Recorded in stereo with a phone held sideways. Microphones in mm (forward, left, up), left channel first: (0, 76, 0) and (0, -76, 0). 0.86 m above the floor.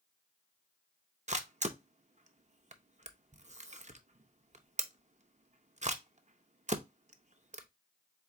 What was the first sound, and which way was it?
A camera shutter, 50° right (ahead or behind).